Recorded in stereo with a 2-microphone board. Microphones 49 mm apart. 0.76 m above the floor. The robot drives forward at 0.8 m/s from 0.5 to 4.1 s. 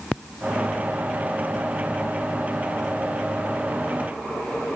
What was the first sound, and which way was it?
Only background noise.